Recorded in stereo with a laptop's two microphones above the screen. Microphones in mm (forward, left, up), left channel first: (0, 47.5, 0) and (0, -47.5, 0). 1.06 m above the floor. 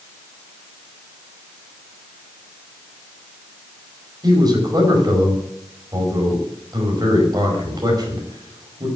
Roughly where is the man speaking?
Right.